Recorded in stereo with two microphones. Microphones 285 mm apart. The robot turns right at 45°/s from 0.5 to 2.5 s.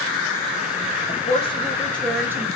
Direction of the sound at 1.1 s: 135° left.